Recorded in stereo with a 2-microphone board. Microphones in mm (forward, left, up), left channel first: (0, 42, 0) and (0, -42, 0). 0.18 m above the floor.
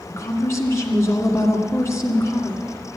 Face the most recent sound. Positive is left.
turn(degrees=35)  # may be behind; listen again after turning